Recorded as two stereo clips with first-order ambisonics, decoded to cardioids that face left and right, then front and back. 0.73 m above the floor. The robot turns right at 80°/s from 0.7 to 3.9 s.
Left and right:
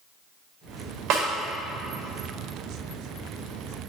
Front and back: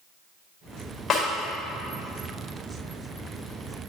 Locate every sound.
1.1 s a snare drum: 60° right, 1.5 m; by 1.3 s 50° right, 1.5 m